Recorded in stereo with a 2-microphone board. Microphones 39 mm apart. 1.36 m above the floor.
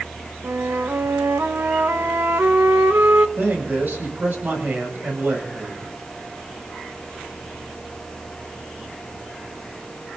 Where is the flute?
70° right (ahead or behind), 1.0 m.